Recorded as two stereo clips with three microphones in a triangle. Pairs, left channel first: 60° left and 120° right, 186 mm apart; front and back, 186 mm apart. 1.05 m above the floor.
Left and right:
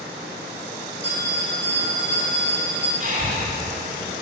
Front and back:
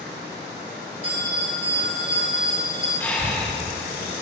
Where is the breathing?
75° right, 2.5 m.